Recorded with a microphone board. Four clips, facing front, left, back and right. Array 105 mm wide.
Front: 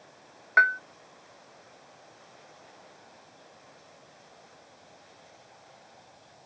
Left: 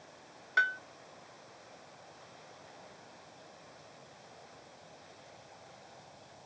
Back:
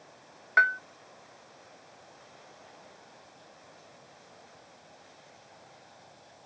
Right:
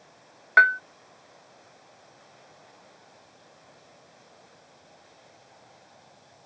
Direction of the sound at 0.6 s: 80° right.